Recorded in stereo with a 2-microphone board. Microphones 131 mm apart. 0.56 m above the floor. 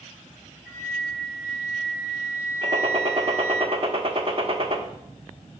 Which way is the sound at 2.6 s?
45° right (ahead or behind).